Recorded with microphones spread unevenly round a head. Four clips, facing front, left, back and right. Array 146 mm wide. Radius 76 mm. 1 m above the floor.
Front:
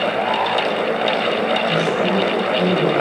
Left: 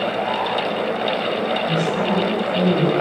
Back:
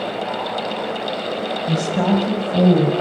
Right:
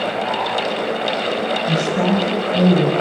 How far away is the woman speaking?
About 7 m.